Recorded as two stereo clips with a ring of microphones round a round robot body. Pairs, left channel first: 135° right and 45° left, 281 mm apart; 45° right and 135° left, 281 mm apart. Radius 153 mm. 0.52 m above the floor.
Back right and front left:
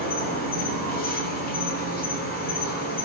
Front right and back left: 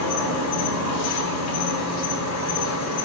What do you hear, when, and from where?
0.0 s an insect: 75° right, 0.9 m